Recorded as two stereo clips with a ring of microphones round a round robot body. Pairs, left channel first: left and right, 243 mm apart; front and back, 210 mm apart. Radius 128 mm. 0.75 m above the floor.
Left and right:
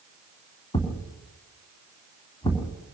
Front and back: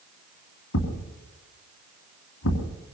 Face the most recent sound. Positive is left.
turn(degrees=15)